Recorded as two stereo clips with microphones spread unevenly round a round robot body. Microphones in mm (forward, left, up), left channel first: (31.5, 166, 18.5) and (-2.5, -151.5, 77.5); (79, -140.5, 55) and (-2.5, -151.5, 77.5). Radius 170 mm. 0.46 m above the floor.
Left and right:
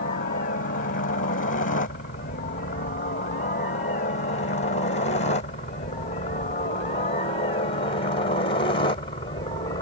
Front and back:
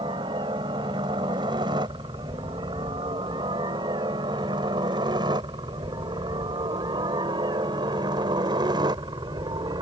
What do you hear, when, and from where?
0.0 s a helicopter: 140° left; by 9.8 s 150° left